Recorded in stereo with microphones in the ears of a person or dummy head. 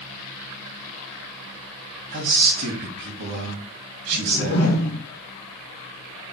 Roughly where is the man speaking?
Right.